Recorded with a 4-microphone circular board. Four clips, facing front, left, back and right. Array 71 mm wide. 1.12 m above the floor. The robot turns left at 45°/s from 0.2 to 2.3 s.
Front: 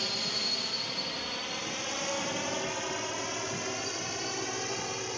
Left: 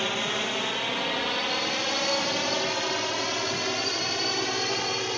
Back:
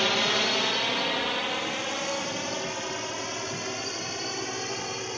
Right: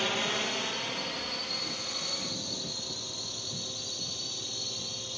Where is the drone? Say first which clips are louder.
Left 3 dB, back 11 dB; 175° left; by 5.2 s 90° left.